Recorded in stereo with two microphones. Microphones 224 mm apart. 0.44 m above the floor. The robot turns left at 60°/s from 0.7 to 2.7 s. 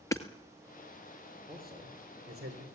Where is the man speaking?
35° right (ahead or behind), 7.5 m; by 2.6 s 75° right (ahead or behind), 7.5 m.